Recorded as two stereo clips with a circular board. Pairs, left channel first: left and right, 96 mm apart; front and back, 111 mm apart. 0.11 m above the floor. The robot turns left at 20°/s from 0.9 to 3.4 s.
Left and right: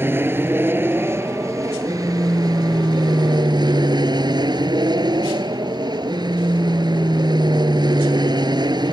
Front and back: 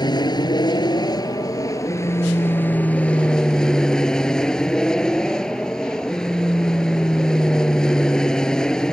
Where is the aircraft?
30° right; by 8.9 s 80° right.